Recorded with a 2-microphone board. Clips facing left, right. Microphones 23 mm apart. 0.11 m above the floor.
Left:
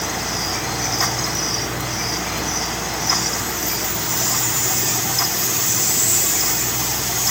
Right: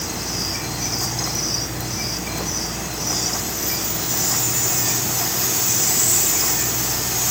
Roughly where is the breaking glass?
I don't hear breaking glass.